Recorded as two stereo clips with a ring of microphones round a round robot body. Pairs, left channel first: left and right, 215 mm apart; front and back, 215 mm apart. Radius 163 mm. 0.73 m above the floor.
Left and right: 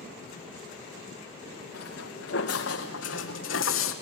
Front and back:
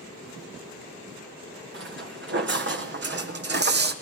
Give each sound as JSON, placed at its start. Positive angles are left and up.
{"t": 1.7, "sound": "footsteps", "azimuth_deg": 150, "distance_m": 4.5}